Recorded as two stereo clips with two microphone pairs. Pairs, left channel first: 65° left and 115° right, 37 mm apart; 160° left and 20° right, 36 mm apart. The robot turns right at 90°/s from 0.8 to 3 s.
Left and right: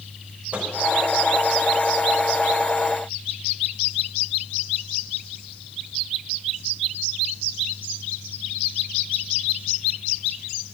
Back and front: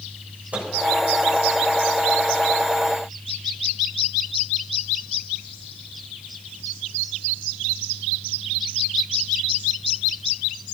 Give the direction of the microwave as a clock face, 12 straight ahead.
2 o'clock.